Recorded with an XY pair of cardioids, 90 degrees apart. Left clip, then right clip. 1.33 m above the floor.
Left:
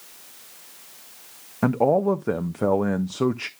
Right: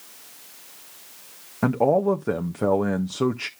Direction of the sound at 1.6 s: 5° left.